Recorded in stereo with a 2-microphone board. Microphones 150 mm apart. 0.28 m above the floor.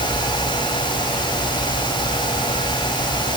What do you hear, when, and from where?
Only background noise.